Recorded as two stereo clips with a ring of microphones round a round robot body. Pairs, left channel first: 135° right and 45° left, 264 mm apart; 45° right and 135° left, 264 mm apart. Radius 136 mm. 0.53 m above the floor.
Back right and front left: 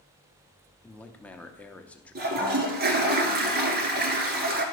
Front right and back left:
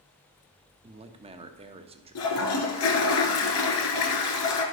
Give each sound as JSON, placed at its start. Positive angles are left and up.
{"t": 0.8, "sound": "a man speaking", "azimuth_deg": 145, "distance_m": 0.8}
{"t": 2.1, "sound": "a toilet flushing", "azimuth_deg": -10, "distance_m": 1.4}